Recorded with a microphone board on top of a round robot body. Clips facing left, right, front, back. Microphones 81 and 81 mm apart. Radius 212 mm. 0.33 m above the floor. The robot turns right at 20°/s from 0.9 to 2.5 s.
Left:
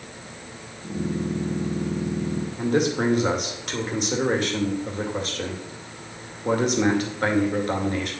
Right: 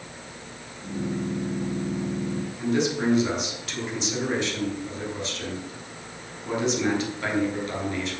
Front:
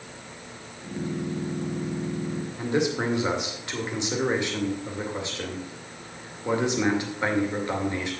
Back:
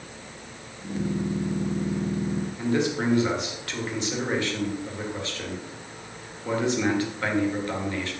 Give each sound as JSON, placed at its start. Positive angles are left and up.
{"t": 2.6, "sound": "a man speaking", "azimuth_deg": 70, "distance_m": 2.5}